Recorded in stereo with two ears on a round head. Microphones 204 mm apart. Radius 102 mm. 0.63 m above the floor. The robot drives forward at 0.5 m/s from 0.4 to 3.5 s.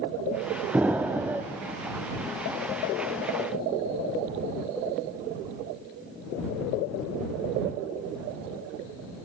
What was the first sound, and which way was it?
An explosion, 5° right (ahead or behind).